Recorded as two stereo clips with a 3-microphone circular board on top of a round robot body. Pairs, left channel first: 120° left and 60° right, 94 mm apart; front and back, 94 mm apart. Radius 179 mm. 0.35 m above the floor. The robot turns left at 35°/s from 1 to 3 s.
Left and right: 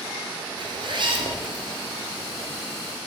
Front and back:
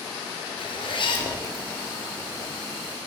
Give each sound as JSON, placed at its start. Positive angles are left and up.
{"t": 0.6, "sound": "a zipper", "azimuth_deg": -25, "distance_m": 1.3}